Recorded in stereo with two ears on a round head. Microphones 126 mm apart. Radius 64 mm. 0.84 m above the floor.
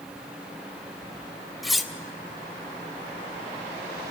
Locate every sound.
1.6 s cutlery clinking: centre (ahead or behind), 0.6 m